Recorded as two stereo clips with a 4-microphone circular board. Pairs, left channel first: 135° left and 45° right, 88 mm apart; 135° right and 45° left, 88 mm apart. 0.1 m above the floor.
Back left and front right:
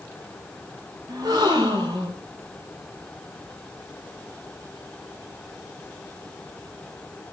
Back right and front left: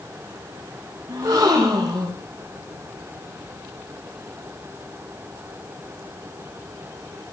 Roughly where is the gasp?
Ahead.